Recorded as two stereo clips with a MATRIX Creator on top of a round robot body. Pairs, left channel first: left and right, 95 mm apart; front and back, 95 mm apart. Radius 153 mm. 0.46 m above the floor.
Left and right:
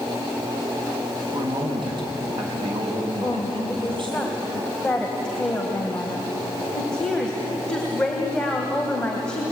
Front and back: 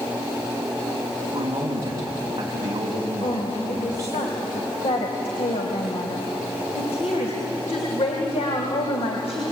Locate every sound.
1.3 s a man speaking: 125° right, 5.5 m
3.2 s a woman speaking: 10° left, 3 m